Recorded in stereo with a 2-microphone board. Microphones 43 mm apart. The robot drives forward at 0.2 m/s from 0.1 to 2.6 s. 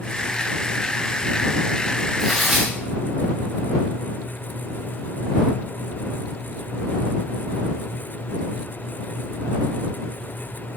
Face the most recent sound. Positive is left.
turn(degrees=-5)  # may be behind; listen again after turning